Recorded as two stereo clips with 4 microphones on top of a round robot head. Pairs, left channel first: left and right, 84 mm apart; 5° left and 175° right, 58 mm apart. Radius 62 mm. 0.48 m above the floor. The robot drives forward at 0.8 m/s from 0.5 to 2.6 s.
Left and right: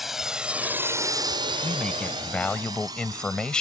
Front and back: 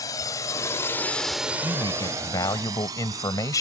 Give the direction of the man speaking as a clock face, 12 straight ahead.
12 o'clock.